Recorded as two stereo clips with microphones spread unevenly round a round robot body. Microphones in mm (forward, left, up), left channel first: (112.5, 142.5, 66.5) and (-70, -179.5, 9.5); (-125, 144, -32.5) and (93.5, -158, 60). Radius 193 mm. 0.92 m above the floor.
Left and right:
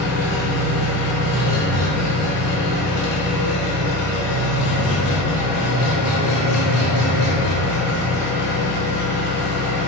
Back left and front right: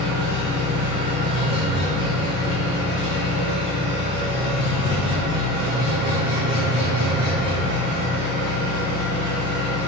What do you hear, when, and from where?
0.0 s an engine running: 30° left, 0.8 m